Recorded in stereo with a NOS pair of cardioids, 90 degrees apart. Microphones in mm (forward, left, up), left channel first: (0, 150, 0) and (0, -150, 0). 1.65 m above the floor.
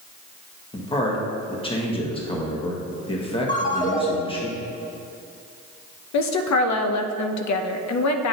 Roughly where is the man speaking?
Ahead.